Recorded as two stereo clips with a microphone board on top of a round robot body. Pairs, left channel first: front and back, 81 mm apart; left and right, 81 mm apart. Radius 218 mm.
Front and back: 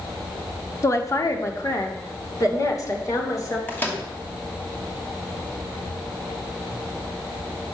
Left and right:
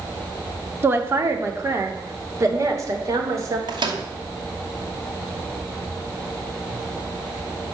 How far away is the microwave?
About 2.5 m.